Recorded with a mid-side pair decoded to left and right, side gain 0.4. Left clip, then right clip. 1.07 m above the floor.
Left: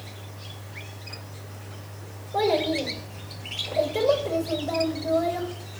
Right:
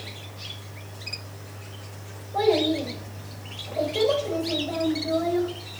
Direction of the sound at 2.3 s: 40° left.